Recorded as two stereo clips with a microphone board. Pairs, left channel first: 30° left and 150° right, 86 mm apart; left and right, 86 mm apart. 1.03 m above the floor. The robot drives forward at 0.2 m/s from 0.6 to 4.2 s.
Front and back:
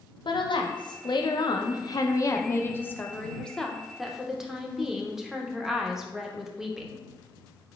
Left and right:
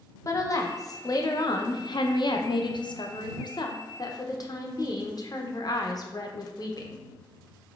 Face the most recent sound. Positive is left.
turn(degrees=125)